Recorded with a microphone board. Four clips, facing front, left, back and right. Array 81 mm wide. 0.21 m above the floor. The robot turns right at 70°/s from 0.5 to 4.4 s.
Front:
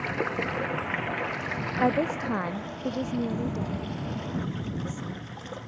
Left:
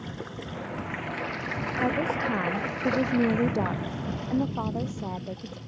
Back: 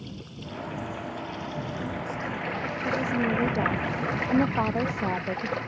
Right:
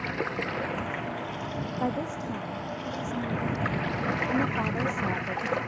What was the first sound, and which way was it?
Running water, 30° right.